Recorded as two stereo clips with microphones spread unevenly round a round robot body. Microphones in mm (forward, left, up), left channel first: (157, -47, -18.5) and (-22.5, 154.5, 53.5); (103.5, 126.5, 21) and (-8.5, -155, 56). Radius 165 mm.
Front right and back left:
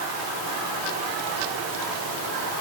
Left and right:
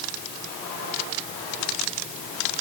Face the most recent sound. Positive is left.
No sound to turn to.